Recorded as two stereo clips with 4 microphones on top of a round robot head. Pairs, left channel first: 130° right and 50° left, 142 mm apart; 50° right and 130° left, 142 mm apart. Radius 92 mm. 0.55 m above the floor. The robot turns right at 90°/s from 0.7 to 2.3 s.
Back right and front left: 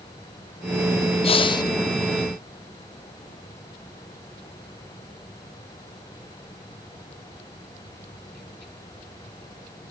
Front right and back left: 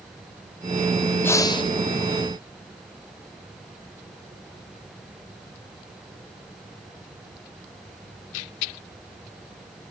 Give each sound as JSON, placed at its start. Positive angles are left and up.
{"t": 1.2, "sound": "breathing", "azimuth_deg": -120, "distance_m": 1.1}